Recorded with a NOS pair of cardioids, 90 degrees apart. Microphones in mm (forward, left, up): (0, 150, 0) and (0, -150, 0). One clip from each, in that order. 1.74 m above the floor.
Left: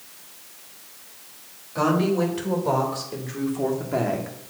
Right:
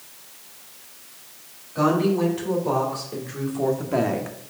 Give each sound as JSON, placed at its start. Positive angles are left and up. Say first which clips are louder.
{"t": 1.8, "sound": "a woman speaking", "louder": "right 1 dB", "azimuth_deg": 30, "distance_m": 3.5}